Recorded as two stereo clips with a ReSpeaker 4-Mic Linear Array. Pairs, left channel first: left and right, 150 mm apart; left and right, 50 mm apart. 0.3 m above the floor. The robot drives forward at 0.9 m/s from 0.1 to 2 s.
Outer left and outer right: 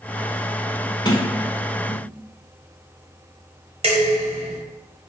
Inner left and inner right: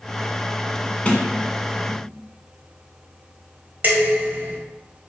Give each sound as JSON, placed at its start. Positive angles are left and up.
{"t": 1.1, "sound": "a sliding door", "side_deg": 30, "distance_m": 0.8}
{"t": 3.8, "sound": "dishes clattering", "side_deg": -45, "distance_m": 1.1}